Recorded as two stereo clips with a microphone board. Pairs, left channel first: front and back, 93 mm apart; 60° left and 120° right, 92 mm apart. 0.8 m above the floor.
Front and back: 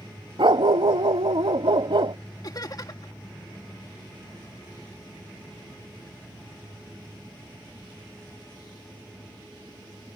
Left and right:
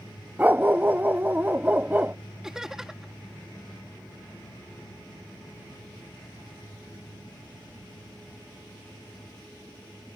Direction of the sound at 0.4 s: 175° left.